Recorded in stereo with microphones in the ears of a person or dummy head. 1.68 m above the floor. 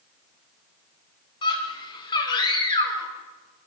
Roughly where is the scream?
Left.